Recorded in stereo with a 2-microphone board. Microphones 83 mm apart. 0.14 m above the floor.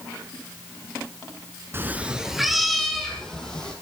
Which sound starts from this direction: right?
A cat meowing, at 1.7 s.